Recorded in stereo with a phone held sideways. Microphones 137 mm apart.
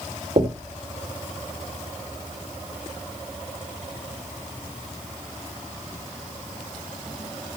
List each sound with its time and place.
0.4 s knocking: 50° right (ahead or behind), 1.9 m